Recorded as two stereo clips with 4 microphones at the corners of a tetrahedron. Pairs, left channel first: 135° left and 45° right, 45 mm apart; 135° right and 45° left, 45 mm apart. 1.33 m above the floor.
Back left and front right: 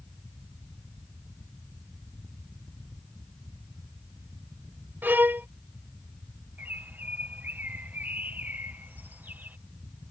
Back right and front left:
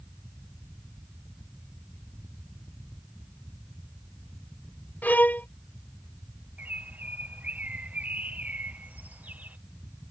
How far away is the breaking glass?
No breaking glass in this recording.